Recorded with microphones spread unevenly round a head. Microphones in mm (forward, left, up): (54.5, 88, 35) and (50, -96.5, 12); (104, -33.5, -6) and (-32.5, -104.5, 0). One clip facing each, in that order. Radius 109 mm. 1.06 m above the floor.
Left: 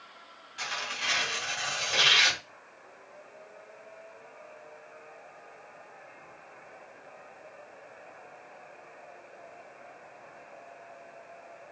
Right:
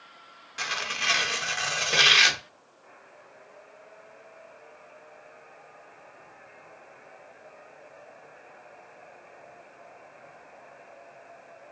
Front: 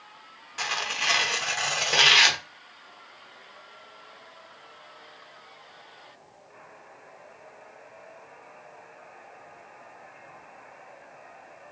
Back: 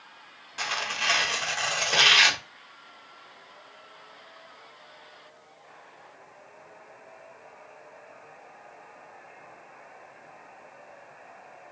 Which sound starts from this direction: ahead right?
Tearing paper, at 0.6 s.